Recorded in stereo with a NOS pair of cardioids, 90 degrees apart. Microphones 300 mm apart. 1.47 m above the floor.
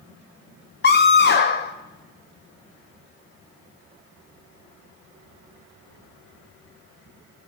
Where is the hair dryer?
No hair dryer in this recording.